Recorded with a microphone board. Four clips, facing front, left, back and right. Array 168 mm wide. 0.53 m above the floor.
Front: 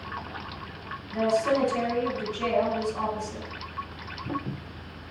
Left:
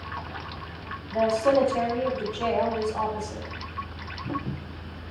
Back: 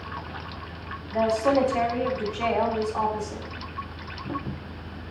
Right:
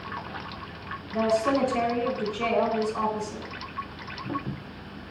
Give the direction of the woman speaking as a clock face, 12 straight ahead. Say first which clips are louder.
Left 2 dB, back 2 dB; 7 o'clock.